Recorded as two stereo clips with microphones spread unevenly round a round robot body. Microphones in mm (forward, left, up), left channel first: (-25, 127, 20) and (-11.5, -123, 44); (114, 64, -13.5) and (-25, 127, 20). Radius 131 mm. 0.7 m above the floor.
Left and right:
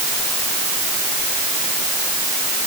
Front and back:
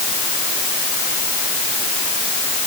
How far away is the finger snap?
No finger snap in this recording.